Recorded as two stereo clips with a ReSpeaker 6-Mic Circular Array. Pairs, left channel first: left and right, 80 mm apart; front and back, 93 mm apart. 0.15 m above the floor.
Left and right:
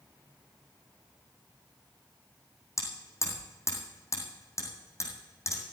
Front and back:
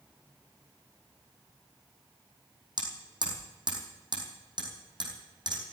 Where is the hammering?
140° left, 3.5 m.